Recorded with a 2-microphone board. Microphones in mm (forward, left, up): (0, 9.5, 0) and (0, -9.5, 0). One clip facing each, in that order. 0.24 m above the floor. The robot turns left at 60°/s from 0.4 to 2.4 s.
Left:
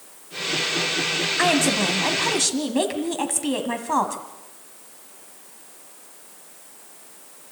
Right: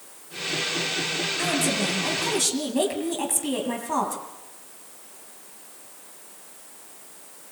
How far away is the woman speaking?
About 1.9 m.